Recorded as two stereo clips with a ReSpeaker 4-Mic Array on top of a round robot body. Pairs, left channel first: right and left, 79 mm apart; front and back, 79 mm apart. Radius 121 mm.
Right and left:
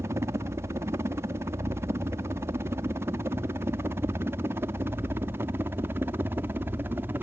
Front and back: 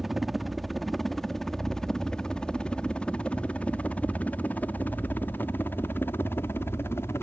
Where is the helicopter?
95° left; by 7.2 s 40° left.